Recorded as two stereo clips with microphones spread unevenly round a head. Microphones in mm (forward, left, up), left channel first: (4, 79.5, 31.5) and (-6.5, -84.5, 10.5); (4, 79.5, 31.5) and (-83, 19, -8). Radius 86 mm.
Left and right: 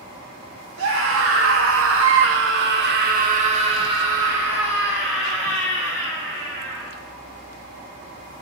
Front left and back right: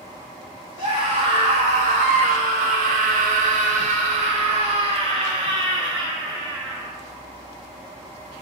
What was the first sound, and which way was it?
A scream, 85° right.